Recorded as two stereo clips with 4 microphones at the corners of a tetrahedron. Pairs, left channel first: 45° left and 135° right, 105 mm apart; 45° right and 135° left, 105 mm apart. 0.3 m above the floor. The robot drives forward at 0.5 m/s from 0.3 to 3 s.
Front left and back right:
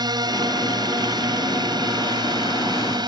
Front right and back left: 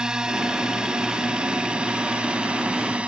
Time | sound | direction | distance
0.0 | a drone | 145° right | ?